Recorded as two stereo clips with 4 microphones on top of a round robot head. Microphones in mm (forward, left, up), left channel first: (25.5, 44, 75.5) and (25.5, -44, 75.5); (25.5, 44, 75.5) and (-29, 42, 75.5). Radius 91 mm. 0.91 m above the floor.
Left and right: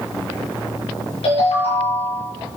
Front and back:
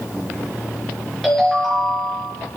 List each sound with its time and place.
1.2 s a ringtone: 90° left, 5.5 m